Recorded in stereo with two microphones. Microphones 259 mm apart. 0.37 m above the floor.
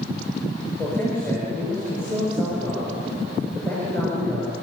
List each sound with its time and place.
0.8 s a man speaking: 10° left (ahead or behind), 6.5 m